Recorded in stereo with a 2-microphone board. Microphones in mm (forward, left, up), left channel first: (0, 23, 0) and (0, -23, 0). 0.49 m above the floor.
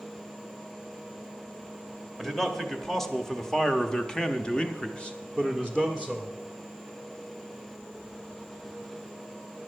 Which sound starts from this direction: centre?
A man speaking, at 2.2 s.